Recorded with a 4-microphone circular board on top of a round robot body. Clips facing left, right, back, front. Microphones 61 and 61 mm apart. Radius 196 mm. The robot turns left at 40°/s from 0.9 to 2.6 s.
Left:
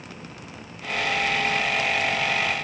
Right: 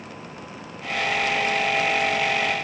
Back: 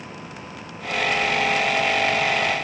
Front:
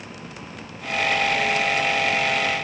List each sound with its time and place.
Only background noise.